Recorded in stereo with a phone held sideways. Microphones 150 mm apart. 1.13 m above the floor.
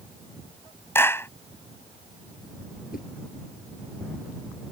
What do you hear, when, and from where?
0.9 s a clap: 15° left (ahead or behind)
2.9 s a whoosh: 70° left (ahead or behind)